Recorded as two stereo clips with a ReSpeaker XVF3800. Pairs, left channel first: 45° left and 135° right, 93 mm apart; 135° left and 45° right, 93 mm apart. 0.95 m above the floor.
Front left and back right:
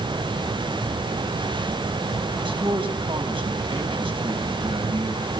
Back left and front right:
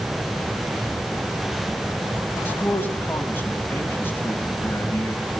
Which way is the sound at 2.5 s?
155° right.